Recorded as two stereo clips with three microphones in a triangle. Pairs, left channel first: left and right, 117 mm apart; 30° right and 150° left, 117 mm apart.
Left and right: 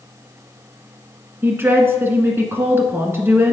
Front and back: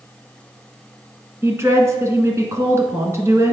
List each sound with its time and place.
1.4 s a woman speaking: 155° right, 1.6 m